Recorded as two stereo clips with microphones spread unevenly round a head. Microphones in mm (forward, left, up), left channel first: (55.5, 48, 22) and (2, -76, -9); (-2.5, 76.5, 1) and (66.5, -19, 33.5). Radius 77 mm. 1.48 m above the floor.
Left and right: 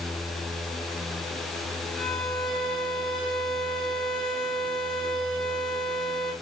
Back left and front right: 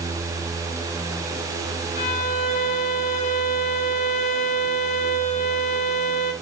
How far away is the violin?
About 2.5 m.